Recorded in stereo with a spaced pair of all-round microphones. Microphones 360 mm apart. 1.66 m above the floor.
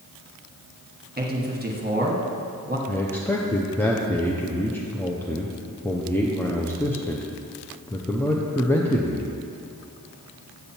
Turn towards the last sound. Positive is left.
turn(degrees=5)  # may be behind; listen again after turning